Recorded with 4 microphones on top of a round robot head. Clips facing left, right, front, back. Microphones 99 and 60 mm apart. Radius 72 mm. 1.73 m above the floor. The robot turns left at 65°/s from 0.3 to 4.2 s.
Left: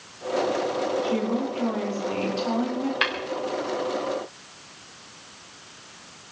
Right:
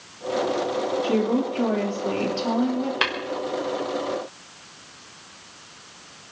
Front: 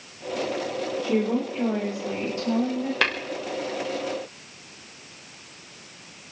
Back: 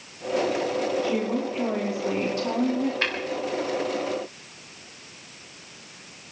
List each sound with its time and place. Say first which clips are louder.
1.0 s a woman speaking: right 3 dB, front 1 dB; 55° right, 5 m; by 2.9 s straight behind, 5 m
3.0 s tapping: right 1 dB, front 3 dB; 25° right, 1.8 m; by 3.1 s 30° right, 1.8 m